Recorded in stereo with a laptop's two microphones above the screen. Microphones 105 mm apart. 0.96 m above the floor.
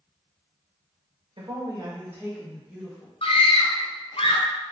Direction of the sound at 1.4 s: 50° right (ahead or behind).